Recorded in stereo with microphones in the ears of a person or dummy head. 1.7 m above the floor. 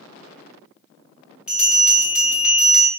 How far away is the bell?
About 0.7 m.